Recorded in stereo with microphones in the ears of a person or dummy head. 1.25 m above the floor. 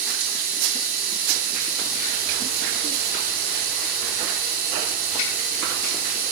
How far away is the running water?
About 0.8 m.